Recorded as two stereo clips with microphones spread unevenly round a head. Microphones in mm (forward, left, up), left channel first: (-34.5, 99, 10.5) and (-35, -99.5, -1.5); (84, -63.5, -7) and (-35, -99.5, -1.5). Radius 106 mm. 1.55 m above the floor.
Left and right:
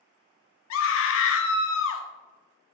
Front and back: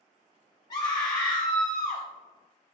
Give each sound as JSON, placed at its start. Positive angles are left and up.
{"t": 0.7, "sound": "a scream", "azimuth_deg": 85, "distance_m": 0.7}